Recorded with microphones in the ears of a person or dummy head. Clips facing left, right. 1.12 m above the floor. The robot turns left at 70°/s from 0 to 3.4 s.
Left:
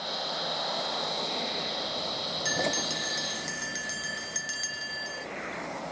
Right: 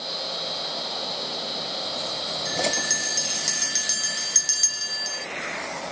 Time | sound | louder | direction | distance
2.5 | a bell | right 3 dB | 10° left | ?